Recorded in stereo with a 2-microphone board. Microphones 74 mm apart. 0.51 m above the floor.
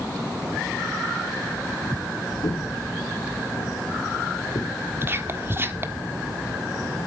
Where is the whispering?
35° right (ahead or behind), 1.3 m.